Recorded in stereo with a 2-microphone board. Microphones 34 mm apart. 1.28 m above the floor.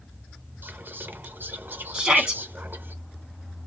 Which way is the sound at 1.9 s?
20° right (ahead or behind).